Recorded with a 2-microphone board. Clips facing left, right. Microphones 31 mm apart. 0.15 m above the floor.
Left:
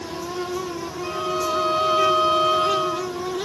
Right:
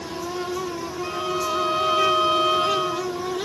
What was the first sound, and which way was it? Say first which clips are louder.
A violin: left 2 dB; 10° right (ahead or behind).